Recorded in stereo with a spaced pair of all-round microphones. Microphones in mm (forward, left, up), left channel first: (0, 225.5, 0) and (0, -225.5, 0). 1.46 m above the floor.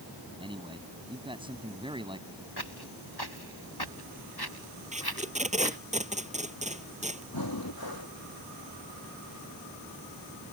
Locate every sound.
0.4 s a man speaking: 10° right (ahead or behind)
2.6 s footsteps: 55° left (ahead or behind)
4.9 s tape being pulled: 15° right (ahead or behind)
7.3 s breathing: 50° left (ahead or behind)